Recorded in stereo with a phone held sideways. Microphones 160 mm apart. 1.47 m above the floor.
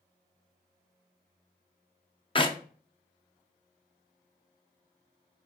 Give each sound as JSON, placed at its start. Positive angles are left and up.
{"t": 2.4, "sound": "a clap", "side_deg": 35, "distance_m": 0.6}